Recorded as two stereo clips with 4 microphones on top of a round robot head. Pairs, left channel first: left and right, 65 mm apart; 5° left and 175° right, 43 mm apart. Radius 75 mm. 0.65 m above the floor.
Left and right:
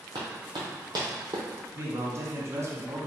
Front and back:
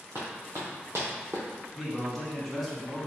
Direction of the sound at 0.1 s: 120° right.